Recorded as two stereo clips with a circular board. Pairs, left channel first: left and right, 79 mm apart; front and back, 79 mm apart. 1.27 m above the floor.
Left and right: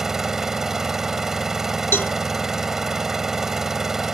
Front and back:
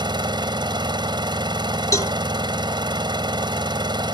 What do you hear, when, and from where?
0.0 s an engine running: 175° right
1.9 s a cowbell: 35° left